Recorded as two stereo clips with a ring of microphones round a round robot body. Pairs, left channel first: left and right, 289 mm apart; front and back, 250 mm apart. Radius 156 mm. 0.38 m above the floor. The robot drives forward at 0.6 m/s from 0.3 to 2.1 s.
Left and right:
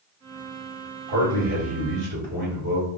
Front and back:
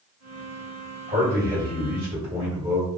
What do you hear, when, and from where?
1.1 s a man speaking: 95° right, 1.8 m; by 2.9 s 120° right, 1.9 m